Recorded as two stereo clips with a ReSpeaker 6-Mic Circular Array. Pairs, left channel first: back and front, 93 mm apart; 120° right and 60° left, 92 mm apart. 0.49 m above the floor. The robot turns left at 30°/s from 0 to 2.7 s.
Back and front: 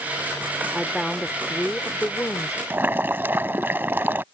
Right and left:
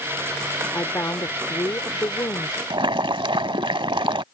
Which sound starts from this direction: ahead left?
Boiling, at 2.7 s.